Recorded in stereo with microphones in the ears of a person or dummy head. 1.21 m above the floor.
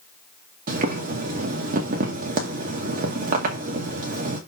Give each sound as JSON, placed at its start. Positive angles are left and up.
{"t": 0.7, "sound": "boiling", "side_deg": -50, "distance_m": 2.0}